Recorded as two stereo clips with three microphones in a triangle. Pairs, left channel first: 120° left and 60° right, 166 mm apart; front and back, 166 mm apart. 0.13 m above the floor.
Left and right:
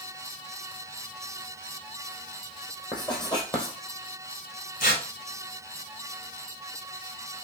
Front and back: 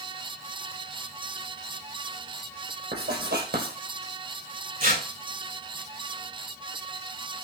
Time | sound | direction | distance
2.9 | writing | straight behind | 3 m
4.8 | tearing paper | 155° left | 4 m